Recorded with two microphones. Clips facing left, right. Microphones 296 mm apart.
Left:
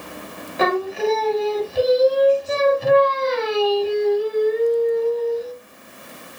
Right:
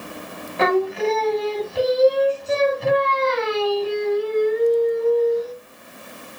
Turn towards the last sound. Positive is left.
turn(degrees=0)  # may be behind; listen again after turning